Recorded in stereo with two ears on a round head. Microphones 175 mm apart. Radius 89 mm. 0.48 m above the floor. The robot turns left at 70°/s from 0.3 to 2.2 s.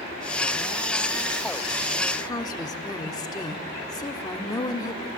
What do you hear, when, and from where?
2.2 s a woman speaking: 20° left (ahead or behind), 1.0 m